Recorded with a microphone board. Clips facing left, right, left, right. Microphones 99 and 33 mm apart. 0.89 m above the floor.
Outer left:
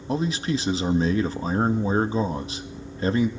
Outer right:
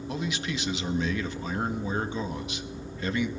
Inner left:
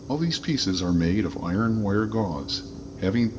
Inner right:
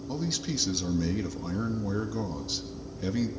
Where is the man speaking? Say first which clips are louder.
Outer left 8 dB, inner left 7 dB; 40° left (ahead or behind), 1.0 m.